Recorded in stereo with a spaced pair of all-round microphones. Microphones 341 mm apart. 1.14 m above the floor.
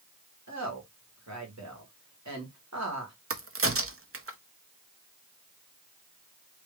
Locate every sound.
0.5 s a woman speaking: 50° right (ahead or behind), 1.7 m
3.3 s a crack: 40° right (ahead or behind), 0.6 m